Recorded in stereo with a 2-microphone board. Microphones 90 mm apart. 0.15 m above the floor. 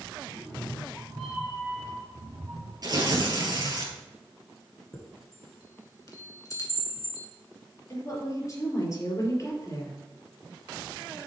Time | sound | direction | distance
0.3 | a cat meowing | 20° left (ahead or behind) | 3.5 m
2.8 | tearing paper | 45° right (ahead or behind) | 2 m
4.9 | a chime | 40° left (ahead or behind) | 1.7 m
7.9 | a woman speaking | 35° left (ahead or behind) | 3.5 m